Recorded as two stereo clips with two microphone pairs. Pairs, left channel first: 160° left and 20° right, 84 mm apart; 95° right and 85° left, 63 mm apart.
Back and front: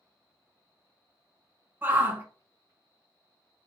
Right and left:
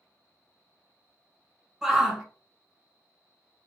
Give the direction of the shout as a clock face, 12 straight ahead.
12 o'clock.